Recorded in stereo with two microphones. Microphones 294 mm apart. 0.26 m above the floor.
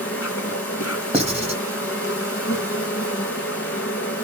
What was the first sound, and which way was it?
An insect, 50° left (ahead or behind).